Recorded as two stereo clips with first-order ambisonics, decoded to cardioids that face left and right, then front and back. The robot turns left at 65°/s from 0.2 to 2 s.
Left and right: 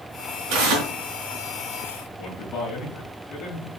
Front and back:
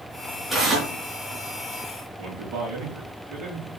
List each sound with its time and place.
0.5 s tearing paper: 90° right, 4.5 m; by 0.9 s 120° right, 4.5 m
2.2 s a man speaking: 140° left, 7 m